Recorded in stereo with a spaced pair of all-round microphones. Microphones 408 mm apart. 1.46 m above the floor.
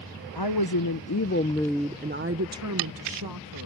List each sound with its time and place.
0.3 s a woman speaking: 70° left (ahead or behind); by 3.7 s 60° right (ahead or behind)